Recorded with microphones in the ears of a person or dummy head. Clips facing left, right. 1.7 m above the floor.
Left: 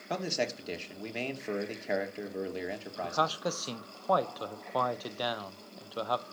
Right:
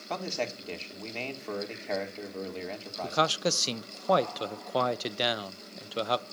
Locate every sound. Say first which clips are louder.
0.1 s a man speaking: left 1 dB; 15° left (ahead or behind), 3 m
3.0 s a man speaking: right 4 dB; 35° right (ahead or behind), 0.9 m